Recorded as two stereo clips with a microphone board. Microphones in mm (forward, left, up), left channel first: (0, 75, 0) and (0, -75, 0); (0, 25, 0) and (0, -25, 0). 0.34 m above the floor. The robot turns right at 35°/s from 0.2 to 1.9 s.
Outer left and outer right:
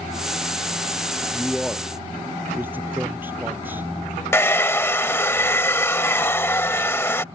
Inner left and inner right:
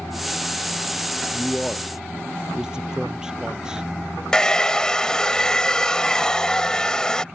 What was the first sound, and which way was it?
A man speaking, 5° left (ahead or behind).